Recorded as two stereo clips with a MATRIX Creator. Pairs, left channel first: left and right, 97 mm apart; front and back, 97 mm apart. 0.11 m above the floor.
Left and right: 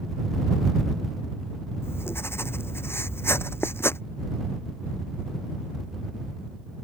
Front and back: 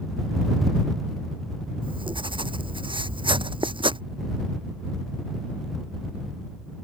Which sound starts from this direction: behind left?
Writing, at 1.8 s.